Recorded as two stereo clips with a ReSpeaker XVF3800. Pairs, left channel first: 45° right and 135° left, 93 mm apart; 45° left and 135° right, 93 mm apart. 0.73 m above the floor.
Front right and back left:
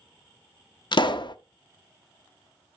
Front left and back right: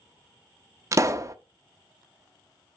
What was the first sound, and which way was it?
A pop, 80° right.